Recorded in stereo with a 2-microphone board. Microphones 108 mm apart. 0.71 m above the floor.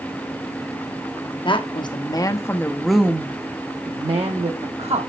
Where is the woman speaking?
50° left (ahead or behind), 1.0 m; by 5.1 s 70° right (ahead or behind), 1.2 m.